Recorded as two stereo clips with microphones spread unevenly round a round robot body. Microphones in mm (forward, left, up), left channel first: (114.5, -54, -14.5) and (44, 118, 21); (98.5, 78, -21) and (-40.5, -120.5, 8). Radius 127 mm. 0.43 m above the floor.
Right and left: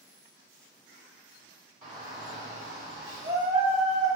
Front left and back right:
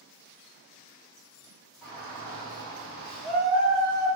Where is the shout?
130° left, 1.0 m; by 4.1 s straight behind, 1.7 m.